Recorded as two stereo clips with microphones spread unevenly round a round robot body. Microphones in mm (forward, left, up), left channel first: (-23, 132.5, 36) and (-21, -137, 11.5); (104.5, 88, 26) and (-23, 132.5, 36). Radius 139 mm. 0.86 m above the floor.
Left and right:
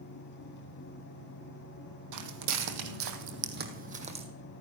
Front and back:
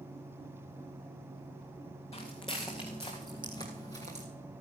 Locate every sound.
2.1 s footsteps: 100° right, 1.8 m; by 4.3 s 160° right, 1.7 m